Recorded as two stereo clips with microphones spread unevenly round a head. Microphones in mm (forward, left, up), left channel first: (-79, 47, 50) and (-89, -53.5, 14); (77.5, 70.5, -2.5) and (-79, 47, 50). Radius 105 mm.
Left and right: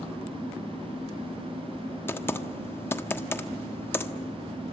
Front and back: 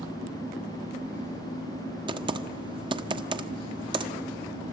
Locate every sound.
2.1 s typing on a keyboard: 140° left, 1.3 m